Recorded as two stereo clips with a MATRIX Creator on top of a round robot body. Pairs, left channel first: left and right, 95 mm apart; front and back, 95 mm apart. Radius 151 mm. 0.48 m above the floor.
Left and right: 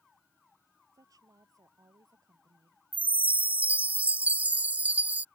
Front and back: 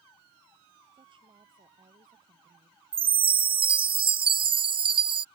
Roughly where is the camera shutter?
No camera shutter in this recording.